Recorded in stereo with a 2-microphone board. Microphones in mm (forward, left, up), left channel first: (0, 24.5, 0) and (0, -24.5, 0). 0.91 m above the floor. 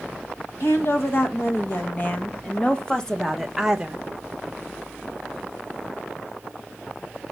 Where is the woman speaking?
55° left (ahead or behind), 1.8 m; by 4.0 s 20° right (ahead or behind), 0.9 m.